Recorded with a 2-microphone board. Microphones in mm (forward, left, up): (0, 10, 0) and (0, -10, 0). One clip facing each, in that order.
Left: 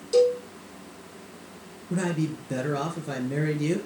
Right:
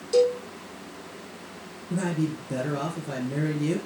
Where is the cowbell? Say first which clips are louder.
Left 1 dB; 5° left (ahead or behind), 3 m.